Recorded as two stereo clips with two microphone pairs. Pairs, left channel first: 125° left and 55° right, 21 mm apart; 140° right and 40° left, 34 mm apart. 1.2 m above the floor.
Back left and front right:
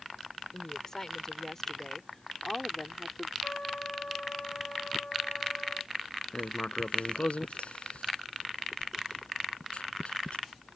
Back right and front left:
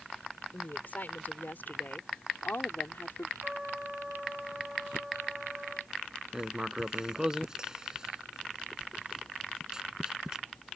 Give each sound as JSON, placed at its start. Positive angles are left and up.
{"t": 0.5, "sound": "a woman speaking", "azimuth_deg": -165}
{"t": 3.4, "sound": "a trumpet", "azimuth_deg": 110}
{"t": 6.3, "sound": "writing", "azimuth_deg": 110}